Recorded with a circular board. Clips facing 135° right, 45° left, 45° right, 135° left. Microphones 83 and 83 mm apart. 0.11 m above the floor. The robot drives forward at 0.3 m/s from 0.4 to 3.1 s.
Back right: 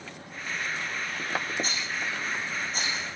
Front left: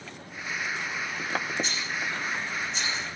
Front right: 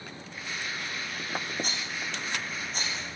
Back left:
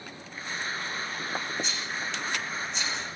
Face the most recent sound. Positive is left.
turn(degrees=-90)